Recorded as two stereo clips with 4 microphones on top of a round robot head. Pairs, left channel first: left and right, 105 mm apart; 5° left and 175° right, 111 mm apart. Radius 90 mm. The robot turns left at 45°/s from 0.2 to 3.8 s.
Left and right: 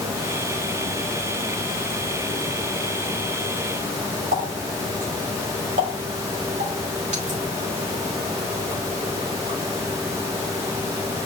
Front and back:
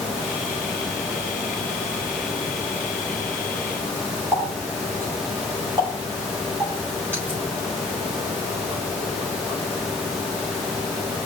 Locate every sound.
4.3 s a running tap: 100° right, 2.5 m